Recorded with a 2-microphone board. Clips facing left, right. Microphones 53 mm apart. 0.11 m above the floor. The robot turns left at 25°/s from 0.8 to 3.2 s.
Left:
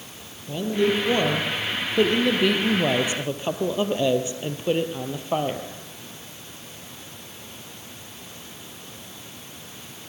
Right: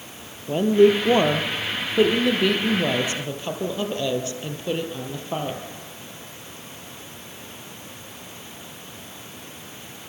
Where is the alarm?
I don't hear an alarm.